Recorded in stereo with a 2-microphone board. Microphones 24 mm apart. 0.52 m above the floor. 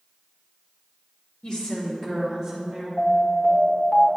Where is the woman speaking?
40° left (ahead or behind), 1.5 m; by 2.9 s 20° right (ahead or behind), 1.7 m.